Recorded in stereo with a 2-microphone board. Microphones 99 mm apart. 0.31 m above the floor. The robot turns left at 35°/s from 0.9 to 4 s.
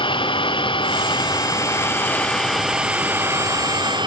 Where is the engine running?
60° left; by 4.1 s 50° right.